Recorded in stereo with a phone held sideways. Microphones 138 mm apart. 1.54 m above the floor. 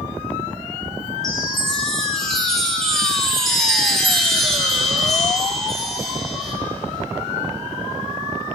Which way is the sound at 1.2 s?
5° left (ahead or behind).